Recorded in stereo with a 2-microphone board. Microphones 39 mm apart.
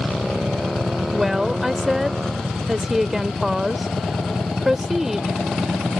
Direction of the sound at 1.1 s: 10° right (ahead or behind).